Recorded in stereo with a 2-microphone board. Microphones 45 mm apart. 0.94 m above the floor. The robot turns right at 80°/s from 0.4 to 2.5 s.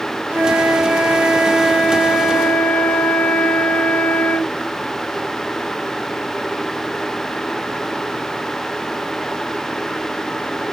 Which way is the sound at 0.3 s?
105° right.